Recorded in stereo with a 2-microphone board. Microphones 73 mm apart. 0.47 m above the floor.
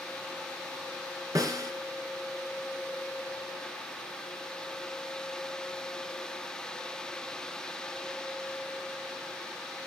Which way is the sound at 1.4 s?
50° right (ahead or behind).